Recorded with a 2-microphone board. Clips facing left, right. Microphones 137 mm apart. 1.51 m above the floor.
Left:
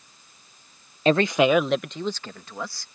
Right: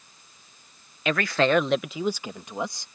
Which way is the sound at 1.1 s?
35° left (ahead or behind).